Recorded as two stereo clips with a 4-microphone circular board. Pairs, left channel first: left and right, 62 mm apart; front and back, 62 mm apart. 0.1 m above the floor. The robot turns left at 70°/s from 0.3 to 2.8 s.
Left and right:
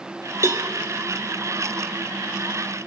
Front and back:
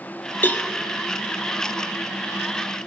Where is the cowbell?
55° right, 0.8 m; by 0.7 s 70° right, 0.8 m.